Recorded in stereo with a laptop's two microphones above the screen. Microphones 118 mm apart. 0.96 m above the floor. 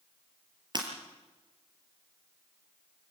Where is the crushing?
I don't hear crushing.